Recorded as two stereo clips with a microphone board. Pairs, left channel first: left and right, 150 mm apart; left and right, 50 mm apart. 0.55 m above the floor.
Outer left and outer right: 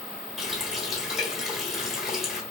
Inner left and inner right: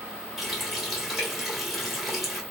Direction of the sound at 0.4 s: 5° right (ahead or behind).